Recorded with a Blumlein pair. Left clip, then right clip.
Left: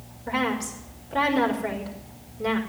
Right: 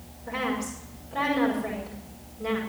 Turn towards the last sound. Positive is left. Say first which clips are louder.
# left 3 dB
turn(degrees=70)